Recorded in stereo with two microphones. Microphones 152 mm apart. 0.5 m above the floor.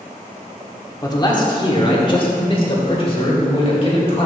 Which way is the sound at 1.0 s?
25° left (ahead or behind).